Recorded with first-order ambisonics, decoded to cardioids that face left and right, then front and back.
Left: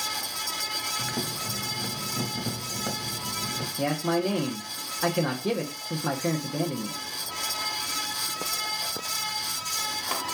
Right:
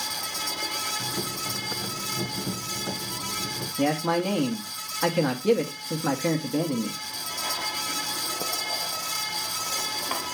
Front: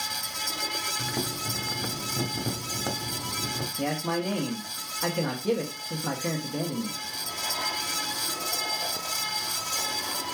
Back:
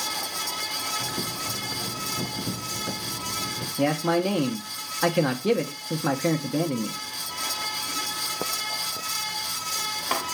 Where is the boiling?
30° left, 1.6 m.